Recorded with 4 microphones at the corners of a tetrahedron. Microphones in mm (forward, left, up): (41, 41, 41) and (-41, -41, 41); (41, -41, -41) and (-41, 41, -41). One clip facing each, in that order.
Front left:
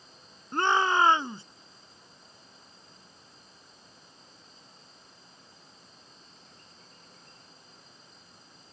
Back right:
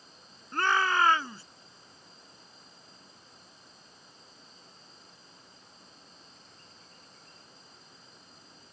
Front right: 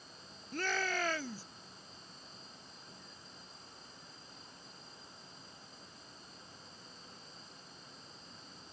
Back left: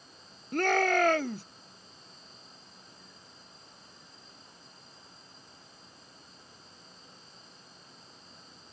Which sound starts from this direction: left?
A shout, at 0.5 s.